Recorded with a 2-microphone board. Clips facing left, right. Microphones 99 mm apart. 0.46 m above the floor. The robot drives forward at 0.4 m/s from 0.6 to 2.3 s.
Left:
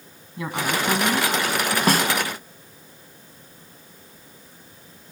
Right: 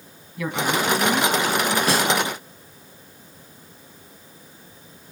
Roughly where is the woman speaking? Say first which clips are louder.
Right 2 dB; left.